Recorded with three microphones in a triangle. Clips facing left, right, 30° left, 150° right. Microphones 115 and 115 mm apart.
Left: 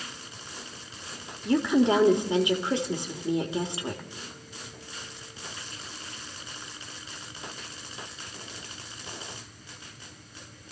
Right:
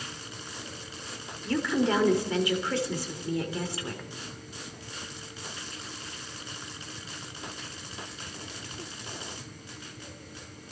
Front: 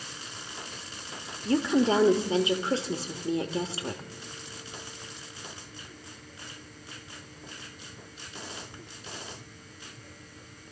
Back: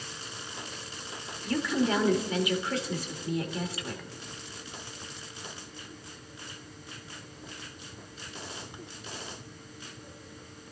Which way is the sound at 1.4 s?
45° left.